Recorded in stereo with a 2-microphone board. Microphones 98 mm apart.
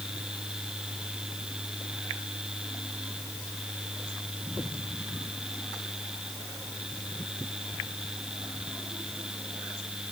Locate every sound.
Only background noise.